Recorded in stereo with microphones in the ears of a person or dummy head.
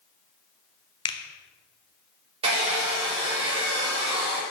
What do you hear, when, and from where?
1.1 s a finger snap: 25° left (ahead or behind), 0.6 m
2.4 s a hair dryer: 35° right (ahead or behind), 2.5 m